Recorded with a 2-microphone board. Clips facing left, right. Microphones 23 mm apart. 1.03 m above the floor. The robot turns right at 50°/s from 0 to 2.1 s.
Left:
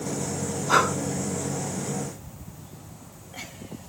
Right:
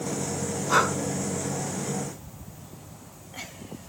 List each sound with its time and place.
0.7 s breathing: 25° left (ahead or behind), 5.5 m; by 0.9 s 10° left (ahead or behind), 5.5 m